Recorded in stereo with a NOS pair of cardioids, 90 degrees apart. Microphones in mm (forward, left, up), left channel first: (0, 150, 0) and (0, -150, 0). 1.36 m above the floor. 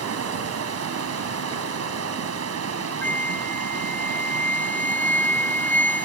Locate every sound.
0.0 s running water: 55° right
3.0 s a flute: 5° left